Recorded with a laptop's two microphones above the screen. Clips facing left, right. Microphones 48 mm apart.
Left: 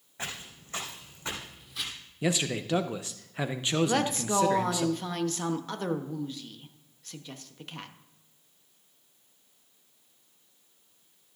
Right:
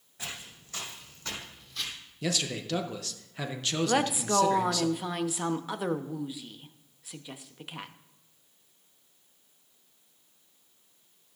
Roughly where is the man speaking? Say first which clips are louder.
Left 3 dB; left.